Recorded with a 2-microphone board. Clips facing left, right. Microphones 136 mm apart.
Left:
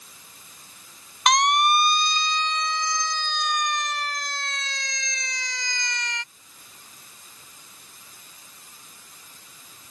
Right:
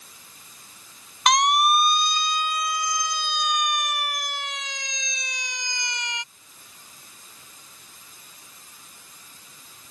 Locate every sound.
1.3 s a siren: centre (ahead or behind); by 6.2 s 15° right (ahead or behind)